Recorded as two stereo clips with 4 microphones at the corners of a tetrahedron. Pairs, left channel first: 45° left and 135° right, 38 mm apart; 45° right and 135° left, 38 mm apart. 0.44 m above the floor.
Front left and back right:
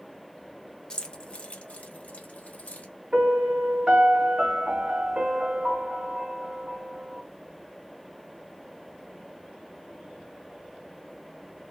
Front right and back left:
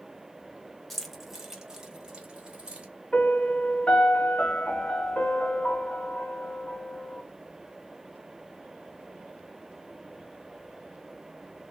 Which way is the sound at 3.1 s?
90° right.